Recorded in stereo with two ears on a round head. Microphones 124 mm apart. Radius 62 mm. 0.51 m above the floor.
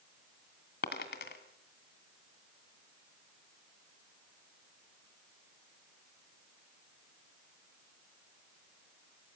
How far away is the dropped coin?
About 2.5 m.